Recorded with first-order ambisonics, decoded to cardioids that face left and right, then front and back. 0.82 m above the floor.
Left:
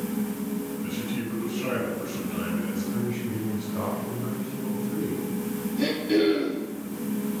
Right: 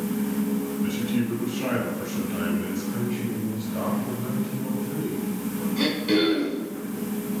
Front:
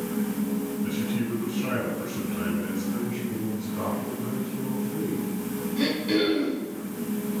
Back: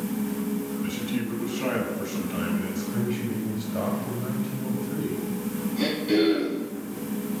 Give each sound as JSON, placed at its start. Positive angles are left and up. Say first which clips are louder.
{"t": 0.8, "sound": "a man speaking", "louder": "right 4 dB, front 1 dB", "azimuth_deg": -145, "distance_m": 4.5}
{"t": 2.9, "sound": "a man speaking", "louder": "right 1 dB, back 2 dB", "azimuth_deg": -160, "distance_m": 5.0}
{"t": 5.8, "sound": "throat clearing", "louder": "right 1 dB, back 1 dB", "azimuth_deg": -90, "distance_m": 4.5}